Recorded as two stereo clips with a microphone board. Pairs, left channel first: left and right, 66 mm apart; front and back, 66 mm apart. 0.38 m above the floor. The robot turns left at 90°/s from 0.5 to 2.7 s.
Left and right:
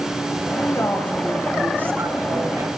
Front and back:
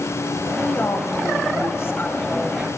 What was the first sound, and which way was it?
A woman speaking, 70° left.